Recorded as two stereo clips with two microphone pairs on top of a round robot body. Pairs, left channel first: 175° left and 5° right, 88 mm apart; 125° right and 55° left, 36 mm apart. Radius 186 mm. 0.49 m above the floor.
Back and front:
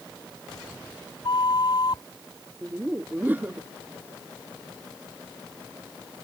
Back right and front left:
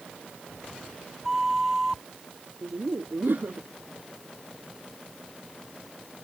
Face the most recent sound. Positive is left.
turn(degrees=65)